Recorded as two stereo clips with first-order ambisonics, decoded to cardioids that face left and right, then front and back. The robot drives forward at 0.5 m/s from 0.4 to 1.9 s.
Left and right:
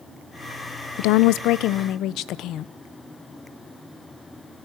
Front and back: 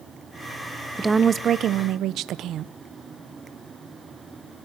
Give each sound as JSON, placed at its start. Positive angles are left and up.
{"t": 1.0, "sound": "a woman speaking", "azimuth_deg": 95, "distance_m": 0.6}